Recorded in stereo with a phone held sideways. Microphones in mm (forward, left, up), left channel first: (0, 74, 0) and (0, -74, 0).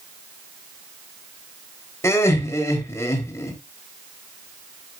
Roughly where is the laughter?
Left.